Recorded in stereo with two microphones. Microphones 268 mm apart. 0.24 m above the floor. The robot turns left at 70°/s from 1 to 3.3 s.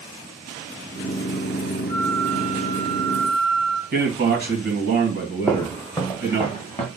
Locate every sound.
1.9 s a flute: 40° left, 0.8 m; by 3.8 s 60° right, 0.8 m
3.9 s a man speaking: 40° right (ahead or behind), 1.5 m
5.5 s footsteps: 5° left (ahead or behind), 0.6 m; by 6.9 s 25° left (ahead or behind), 1.5 m